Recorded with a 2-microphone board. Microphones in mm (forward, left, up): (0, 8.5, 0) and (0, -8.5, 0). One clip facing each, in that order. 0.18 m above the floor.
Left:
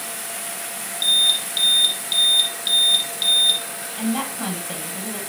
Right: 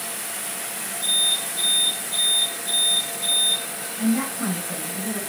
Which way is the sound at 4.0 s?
75° left (ahead or behind).